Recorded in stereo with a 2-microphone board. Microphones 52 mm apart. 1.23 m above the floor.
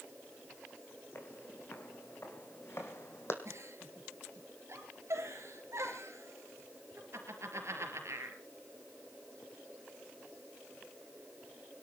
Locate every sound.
1.1 s footsteps: 50° left (ahead or behind), 4.5 m; by 3.4 s 55° left (ahead or behind), 2.5 m
3.5 s a giggle: 65° right (ahead or behind), 3.5 m